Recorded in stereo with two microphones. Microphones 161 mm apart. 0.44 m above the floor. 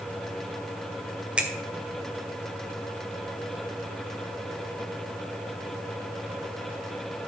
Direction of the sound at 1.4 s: 5° right (ahead or behind).